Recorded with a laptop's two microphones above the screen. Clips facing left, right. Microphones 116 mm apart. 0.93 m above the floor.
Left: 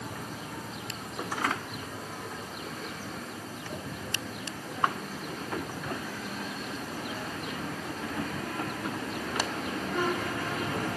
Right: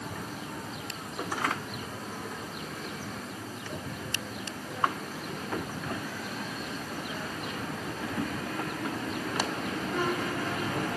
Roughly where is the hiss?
No hiss in this recording.